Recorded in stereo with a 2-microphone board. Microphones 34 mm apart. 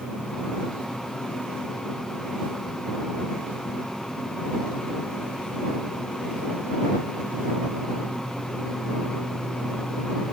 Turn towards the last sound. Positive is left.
No sound to turn to.